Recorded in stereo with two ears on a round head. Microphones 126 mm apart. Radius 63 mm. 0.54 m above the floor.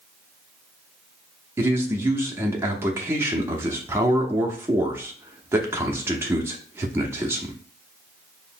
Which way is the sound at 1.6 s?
15° right (ahead or behind).